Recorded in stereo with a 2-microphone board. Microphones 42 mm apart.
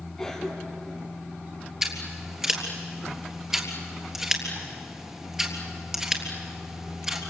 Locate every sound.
0.2 s a cough: 10° left (ahead or behind), 2 m
1.8 s scissors: 10° right (ahead or behind), 3.5 m